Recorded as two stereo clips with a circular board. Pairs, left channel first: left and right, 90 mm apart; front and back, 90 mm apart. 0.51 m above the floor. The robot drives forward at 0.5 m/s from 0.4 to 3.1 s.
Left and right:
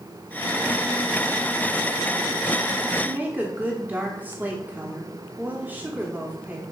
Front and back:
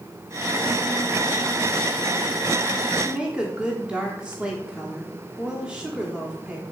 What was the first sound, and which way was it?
A woman speaking, 115° right.